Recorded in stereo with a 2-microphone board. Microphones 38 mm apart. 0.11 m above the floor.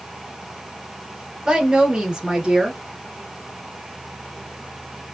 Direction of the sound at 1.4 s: 20° right (ahead or behind).